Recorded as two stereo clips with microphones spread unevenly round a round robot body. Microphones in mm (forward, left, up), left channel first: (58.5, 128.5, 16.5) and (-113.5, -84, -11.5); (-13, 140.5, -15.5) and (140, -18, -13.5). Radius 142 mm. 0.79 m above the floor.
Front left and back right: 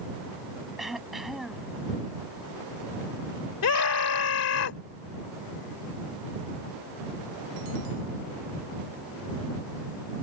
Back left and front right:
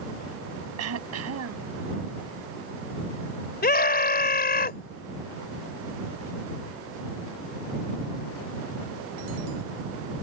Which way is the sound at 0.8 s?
40° right.